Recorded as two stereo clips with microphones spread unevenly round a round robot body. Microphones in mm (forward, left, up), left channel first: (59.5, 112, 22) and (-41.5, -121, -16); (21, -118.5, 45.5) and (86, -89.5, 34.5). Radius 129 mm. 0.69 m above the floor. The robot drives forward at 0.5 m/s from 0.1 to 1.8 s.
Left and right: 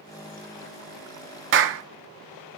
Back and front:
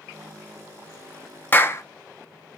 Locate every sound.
1.5 s a clap: 90° right, 0.8 m; by 1.8 s 100° right, 0.8 m